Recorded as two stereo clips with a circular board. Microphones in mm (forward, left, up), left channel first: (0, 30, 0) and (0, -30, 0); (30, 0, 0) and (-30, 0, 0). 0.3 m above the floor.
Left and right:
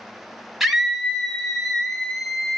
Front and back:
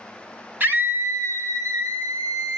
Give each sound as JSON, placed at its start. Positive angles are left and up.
{"t": 0.6, "sound": "a scream", "azimuth_deg": -175, "distance_m": 1.1}